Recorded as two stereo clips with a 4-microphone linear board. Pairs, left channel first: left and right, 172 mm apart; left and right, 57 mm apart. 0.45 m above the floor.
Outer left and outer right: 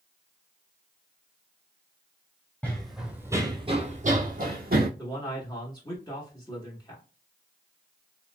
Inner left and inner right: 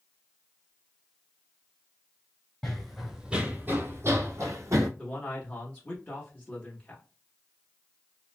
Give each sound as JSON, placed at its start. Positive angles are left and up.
{"t": 2.6, "sound": "running footsteps", "side_deg": 10, "distance_m": 0.8}
{"t": 5.0, "sound": "a man speaking", "side_deg": 20, "distance_m": 1.0}